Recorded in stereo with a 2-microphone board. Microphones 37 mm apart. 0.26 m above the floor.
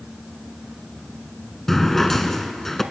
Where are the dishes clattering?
I don't hear dishes clattering.